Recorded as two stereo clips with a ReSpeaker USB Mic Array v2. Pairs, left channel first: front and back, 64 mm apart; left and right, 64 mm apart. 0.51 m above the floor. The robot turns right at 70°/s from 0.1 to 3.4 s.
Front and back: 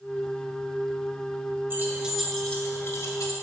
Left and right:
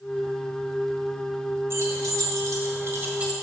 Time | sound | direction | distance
1.7 | keys jangling | 130° right | 1.5 m